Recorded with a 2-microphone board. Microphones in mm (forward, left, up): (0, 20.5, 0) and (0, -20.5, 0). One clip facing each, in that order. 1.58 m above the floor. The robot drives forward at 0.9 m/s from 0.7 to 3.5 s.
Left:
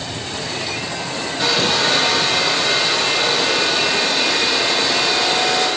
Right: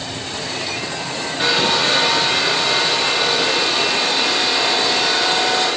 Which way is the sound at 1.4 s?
25° right (ahead or behind).